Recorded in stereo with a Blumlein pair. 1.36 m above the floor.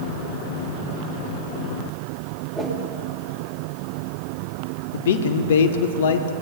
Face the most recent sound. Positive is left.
turn(degrees=60)